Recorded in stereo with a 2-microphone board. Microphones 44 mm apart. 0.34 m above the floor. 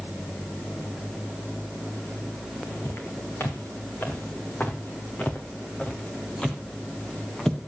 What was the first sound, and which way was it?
Footsteps, 65° left (ahead or behind).